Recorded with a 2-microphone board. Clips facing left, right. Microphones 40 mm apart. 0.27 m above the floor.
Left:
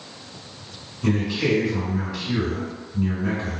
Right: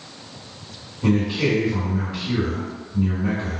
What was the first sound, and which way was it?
A man speaking, 35° right (ahead or behind).